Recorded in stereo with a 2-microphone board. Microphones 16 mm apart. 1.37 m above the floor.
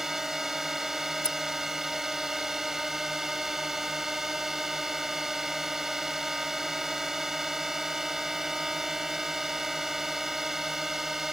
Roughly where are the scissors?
Left.